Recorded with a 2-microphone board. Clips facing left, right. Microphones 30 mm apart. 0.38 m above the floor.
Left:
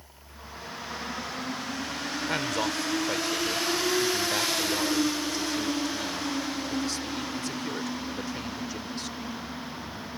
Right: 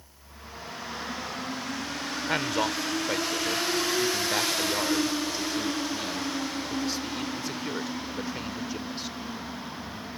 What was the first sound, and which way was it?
A man speaking, 10° right (ahead or behind).